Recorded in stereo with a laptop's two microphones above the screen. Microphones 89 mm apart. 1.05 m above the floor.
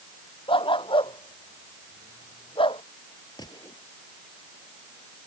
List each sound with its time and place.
0.5 s a dog barking: 75° left (ahead or behind); by 2.8 s 80° left
3.4 s a gunshot: 50° left (ahead or behind)